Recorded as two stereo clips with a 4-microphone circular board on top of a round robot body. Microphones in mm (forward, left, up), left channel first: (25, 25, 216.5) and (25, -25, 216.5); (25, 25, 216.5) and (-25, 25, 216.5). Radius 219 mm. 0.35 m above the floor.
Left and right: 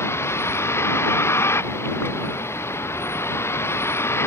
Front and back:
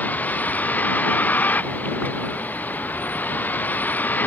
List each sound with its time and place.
0.0 s a vehicle: 55° left